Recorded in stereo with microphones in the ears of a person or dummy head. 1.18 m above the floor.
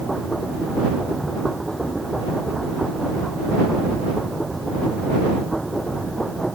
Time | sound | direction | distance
0.0 | a machine running | centre (ahead or behind) | ?